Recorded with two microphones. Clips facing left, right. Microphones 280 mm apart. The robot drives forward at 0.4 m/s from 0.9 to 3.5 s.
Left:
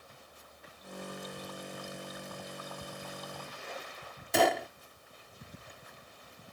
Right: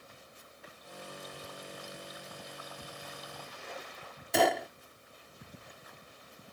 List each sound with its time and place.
1.4 s ticking: 25° right (ahead or behind)
4.3 s a gunshot: centre (ahead or behind)